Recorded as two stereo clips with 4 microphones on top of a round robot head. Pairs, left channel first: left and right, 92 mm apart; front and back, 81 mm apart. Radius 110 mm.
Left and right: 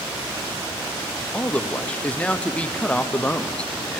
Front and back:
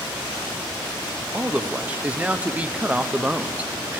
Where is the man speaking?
140° left, 0.6 m.